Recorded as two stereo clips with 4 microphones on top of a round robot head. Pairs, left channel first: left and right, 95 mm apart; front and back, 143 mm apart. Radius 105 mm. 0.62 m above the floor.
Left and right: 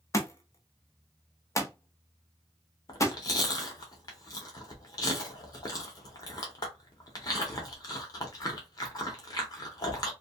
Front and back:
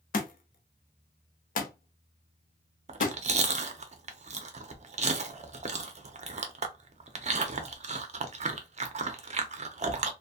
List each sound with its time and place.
0.1 s a thud: 30° left, 0.7 m
2.9 s chewing: 140° left, 0.7 m